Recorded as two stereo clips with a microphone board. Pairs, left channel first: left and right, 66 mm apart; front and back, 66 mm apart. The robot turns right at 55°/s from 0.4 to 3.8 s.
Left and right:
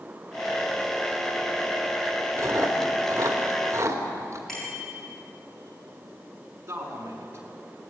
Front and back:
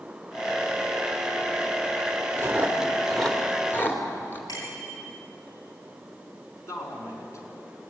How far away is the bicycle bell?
About 10 m.